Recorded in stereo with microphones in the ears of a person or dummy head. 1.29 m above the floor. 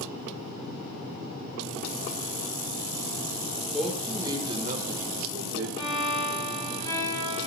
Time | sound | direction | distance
3.7 | a man speaking | 5° left (ahead or behind) | 1.9 m
5.8 | a violin | 15° left (ahead or behind) | 5.5 m